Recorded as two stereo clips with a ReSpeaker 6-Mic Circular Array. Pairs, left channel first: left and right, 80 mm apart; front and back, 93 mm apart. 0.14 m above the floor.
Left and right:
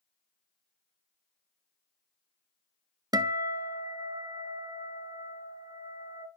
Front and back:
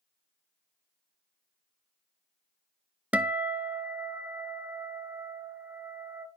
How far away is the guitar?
About 0.5 m.